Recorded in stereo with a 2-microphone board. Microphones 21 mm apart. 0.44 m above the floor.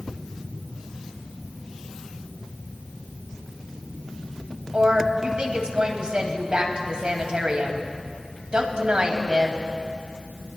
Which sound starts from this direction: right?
A woman speaking, at 4.7 s.